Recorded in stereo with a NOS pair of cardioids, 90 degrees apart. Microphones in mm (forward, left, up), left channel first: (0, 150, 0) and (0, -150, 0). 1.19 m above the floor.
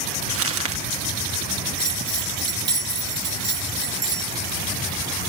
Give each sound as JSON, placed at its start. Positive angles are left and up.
{"t": 0.3, "sound": "crumpling", "azimuth_deg": -50, "distance_m": 1.3}
{"t": 1.8, "sound": "a bell", "azimuth_deg": -55, "distance_m": 2.0}